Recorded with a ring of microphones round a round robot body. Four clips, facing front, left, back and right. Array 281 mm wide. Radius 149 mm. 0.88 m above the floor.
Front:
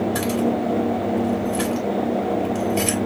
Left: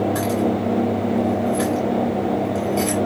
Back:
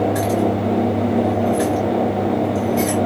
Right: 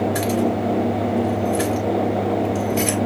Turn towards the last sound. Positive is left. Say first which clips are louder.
# even, back 3 dB
turn(degrees=-35)